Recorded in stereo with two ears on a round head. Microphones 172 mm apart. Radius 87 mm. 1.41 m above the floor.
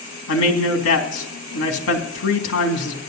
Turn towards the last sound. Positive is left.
turn(degrees=90)